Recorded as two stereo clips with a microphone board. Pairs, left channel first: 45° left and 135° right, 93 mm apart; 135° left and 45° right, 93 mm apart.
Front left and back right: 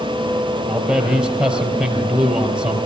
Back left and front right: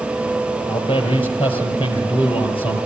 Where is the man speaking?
140° left, 3.5 m.